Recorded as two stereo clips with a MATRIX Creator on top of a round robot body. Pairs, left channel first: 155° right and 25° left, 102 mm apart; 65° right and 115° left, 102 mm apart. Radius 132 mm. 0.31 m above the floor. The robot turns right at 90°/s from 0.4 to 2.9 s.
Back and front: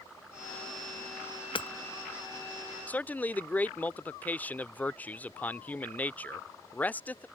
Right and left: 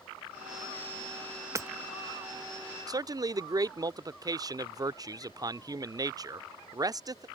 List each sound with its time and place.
1.6 s hammering: 170° left; by 1.7 s 175° right
2.9 s a man speaking: 135° left